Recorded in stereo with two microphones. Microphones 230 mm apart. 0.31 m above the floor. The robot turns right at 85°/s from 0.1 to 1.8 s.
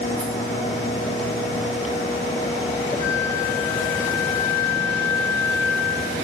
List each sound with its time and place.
0.2 s a rattle: 55° right (ahead or behind), 3 m; by 0.3 s 60° right (ahead or behind), 3 m
3.0 s a flute: 30° left (ahead or behind), 4.5 m